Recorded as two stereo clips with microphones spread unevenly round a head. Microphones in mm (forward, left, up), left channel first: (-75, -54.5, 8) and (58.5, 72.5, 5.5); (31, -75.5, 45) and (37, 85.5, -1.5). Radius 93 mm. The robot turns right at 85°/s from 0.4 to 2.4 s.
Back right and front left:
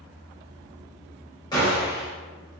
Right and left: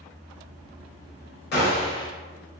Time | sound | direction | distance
1.5 | a gunshot | 65° right | 1.6 m